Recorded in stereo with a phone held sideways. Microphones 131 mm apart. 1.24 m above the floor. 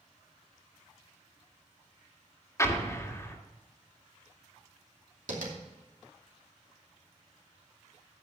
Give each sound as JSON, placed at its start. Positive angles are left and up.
{"t": 2.6, "sound": "an explosion", "side_deg": 20, "distance_m": 1.7}
{"t": 5.3, "sound": "tapping", "side_deg": -80, "distance_m": 2.5}